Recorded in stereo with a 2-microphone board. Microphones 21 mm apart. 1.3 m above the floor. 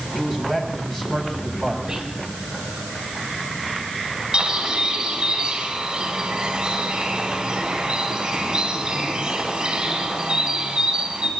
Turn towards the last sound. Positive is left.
turn(degrees=-35)  # may be behind; listen again after turning